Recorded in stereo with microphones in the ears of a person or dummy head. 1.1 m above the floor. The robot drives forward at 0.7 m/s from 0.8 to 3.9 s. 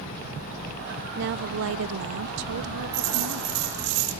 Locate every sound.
1.2 s a woman speaking: 60° right (ahead or behind), 1.2 m; by 3.6 s 45° right (ahead or behind), 1.6 m
2.9 s a dropped coin: 55° right (ahead or behind), 10 m; by 4.1 s 50° right (ahead or behind), 10 m